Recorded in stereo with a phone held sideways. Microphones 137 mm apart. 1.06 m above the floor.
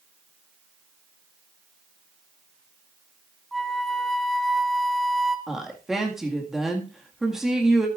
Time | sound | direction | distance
3.5 | a flute | centre (ahead or behind) | 0.8 m
5.5 | a woman speaking | 5° right (ahead or behind) | 1.9 m